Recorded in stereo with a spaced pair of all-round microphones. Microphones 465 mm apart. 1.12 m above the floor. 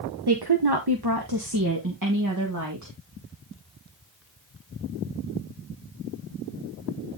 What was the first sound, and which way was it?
A woman speaking, 55° right (ahead or behind).